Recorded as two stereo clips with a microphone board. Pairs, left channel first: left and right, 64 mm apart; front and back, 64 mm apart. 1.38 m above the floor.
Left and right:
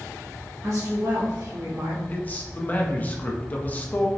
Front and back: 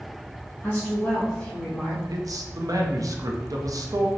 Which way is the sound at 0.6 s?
70° right.